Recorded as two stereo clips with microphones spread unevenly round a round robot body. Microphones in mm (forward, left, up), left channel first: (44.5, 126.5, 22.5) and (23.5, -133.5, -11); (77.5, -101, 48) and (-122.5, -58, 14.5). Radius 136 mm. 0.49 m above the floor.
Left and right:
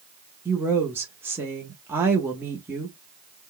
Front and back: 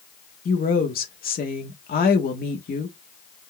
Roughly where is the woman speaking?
Ahead right.